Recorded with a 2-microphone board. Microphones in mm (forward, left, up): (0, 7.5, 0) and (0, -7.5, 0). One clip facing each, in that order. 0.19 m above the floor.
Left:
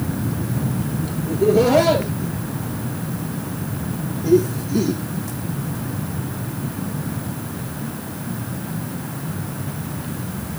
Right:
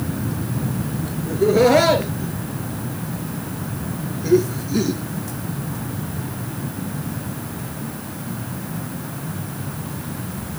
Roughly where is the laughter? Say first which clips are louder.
Right 1 dB; right.